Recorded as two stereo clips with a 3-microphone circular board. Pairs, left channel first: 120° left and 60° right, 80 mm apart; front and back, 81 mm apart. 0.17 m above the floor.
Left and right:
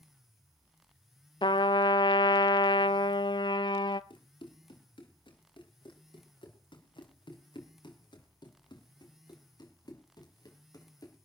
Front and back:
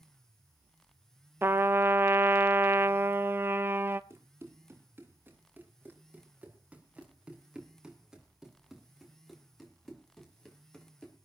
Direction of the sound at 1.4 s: 120° left.